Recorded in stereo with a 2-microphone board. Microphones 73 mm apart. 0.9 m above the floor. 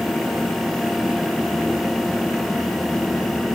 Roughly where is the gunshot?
I don't hear a gunshot.